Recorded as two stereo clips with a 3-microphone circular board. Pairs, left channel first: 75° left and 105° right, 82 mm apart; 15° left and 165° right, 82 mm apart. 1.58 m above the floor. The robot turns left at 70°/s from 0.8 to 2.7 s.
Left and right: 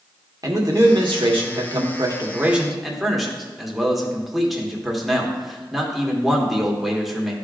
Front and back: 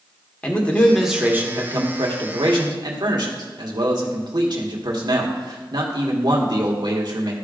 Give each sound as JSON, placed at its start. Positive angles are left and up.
{"t": 0.4, "sound": "a man speaking", "azimuth_deg": -60, "distance_m": 1.5}